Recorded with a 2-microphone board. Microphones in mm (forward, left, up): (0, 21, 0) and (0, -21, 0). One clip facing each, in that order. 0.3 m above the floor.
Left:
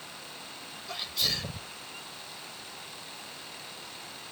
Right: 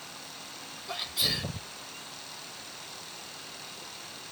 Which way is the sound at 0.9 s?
5° right (ahead or behind).